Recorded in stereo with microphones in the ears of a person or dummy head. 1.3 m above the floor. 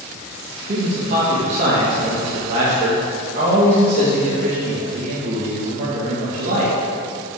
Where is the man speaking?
45° right (ahead or behind), 2 m.